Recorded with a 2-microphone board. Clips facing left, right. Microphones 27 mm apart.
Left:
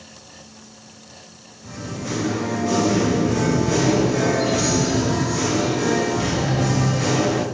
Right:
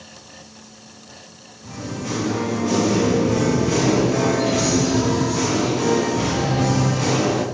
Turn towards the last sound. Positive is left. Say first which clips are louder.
# right 1 dB
turn(degrees=-40)  # may be behind; listen again after turning